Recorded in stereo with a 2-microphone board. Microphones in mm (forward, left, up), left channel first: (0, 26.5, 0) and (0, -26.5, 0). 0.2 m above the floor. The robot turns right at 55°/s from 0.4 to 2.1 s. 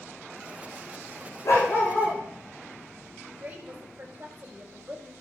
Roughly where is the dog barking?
Left.